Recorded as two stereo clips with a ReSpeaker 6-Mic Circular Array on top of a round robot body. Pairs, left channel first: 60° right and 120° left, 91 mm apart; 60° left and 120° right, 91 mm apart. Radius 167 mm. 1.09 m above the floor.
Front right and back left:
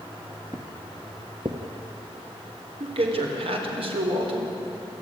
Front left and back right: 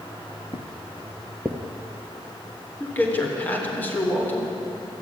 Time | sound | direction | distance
0.5 | footsteps | 60° left | 1.1 m
2.8 | a man speaking | 130° left | 4 m